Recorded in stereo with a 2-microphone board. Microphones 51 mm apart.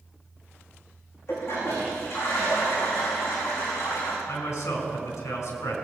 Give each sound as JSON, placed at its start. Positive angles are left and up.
{"t": 1.3, "sound": "a toilet flushing", "side_deg": 55, "distance_m": 5.5}
{"t": 4.3, "sound": "a man speaking", "side_deg": 70, "distance_m": 4.5}